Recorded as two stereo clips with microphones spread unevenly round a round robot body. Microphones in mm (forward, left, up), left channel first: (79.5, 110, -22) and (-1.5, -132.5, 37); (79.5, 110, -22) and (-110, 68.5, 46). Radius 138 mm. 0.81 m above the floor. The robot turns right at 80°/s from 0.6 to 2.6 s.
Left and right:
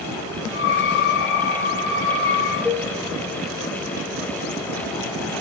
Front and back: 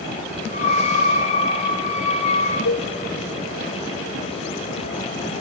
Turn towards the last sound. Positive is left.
turn(degrees=-25)